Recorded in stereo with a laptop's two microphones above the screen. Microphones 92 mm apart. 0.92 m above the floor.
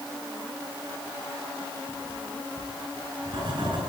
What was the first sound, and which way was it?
Writing, 55° right (ahead or behind).